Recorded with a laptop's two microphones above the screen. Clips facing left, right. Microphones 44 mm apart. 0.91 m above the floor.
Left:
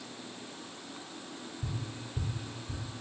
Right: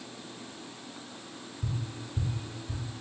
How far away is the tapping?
About 5 m.